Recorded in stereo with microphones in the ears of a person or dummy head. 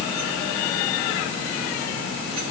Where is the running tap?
No running tap in this recording.